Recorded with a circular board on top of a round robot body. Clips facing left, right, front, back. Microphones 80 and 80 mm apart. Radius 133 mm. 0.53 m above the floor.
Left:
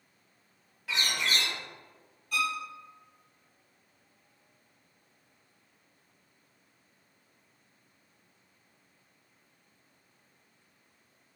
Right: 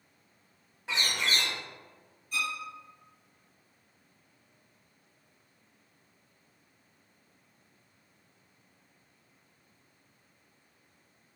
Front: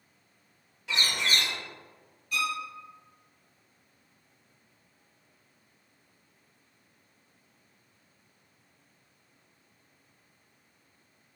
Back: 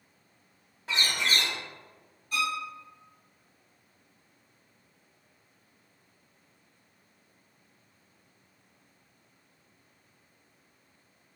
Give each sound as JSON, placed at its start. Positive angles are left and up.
{"t": 0.9, "sound": "a bird", "azimuth_deg": -145, "distance_m": 1.1}
{"t": 2.3, "sound": "a violin", "azimuth_deg": 120, "distance_m": 0.7}